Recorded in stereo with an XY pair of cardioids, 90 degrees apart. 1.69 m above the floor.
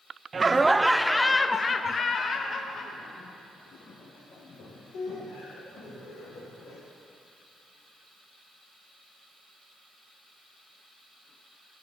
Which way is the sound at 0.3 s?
35° right.